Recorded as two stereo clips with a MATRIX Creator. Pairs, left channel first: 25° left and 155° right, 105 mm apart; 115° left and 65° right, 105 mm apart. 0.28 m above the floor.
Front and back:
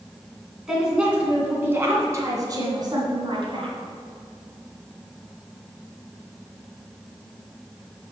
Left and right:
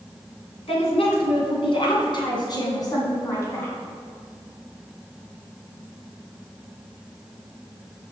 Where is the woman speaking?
120° left, 2.5 m; by 3.8 s 175° left, 2.5 m.